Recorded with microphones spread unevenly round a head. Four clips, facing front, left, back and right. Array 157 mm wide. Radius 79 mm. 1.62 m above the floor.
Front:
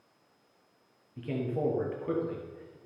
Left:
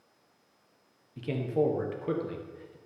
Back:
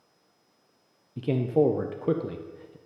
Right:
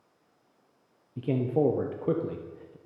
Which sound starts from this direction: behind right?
A man speaking, at 1.2 s.